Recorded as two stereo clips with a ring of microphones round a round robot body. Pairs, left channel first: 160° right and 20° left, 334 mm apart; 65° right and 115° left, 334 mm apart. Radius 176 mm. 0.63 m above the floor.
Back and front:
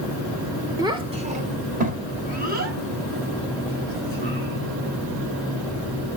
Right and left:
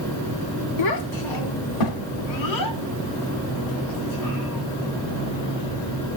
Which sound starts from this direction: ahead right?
A child speaking, at 0.8 s.